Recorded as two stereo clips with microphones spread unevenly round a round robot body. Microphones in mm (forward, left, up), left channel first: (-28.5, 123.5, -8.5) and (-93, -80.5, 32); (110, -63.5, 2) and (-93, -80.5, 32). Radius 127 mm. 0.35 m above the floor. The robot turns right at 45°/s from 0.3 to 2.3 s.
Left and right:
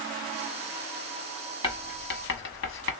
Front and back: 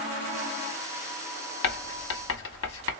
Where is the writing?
Straight ahead, 0.7 m; by 2.9 s 30° left, 0.7 m.